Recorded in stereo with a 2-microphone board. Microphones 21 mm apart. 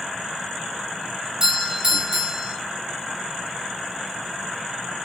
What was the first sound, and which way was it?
A doorbell, 35° right (ahead or behind).